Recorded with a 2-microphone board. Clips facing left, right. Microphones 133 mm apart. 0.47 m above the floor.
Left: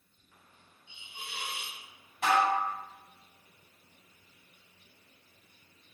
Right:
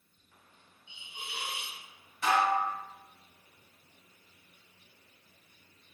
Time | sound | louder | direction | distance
0.9 | a hiss | right 1 dB | 15° right (ahead or behind) | 0.5 m
2.2 | dishes clattering | left 1 dB | 55° left (ahead or behind) | 0.9 m